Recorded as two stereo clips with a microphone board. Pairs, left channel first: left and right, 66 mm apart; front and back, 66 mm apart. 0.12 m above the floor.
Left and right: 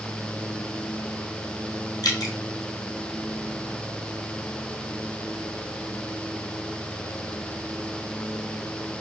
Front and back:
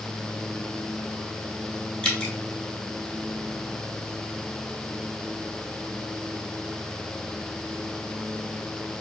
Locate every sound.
2.0 s dripping: 75° left, 1.1 m